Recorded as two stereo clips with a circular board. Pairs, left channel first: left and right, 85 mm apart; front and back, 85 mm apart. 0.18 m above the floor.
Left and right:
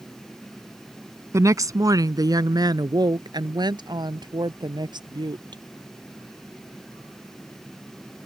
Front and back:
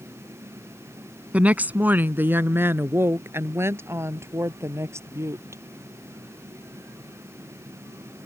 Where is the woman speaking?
115° right; by 5.6 s 125° right.